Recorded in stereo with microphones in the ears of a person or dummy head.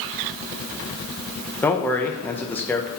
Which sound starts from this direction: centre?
A man speaking, at 1.6 s.